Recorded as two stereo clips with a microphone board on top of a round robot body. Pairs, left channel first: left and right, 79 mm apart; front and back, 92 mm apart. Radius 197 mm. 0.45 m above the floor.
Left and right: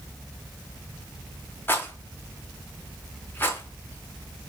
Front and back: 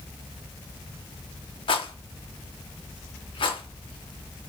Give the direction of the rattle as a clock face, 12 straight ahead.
11 o'clock.